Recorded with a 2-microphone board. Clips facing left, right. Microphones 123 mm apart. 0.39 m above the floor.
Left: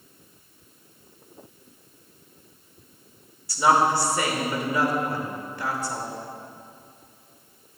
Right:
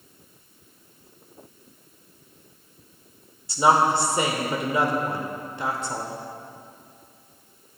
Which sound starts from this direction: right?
A woman speaking, at 3.5 s.